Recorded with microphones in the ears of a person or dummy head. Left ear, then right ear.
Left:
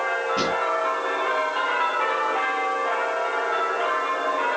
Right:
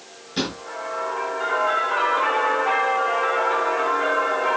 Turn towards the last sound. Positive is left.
turn(degrees=-60)  # may be behind; listen again after turning